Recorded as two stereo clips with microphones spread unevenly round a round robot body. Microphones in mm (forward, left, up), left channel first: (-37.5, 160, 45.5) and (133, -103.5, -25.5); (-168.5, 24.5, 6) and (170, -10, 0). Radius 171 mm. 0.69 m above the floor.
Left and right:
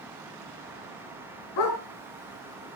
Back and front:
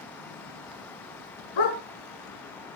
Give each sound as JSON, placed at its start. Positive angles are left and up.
{"t": 1.6, "sound": "a dog barking", "azimuth_deg": 165, "distance_m": 4.0}